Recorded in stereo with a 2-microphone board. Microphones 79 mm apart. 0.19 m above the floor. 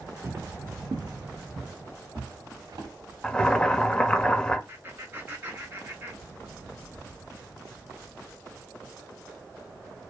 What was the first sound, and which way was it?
Footsteps, 30° right (ahead or behind).